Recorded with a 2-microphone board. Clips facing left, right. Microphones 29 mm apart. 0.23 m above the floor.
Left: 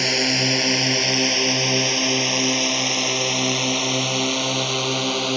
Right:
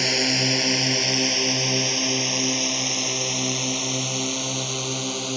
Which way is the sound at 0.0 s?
10° left (ahead or behind).